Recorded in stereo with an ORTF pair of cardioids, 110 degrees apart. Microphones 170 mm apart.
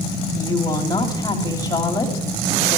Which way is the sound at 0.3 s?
20° left.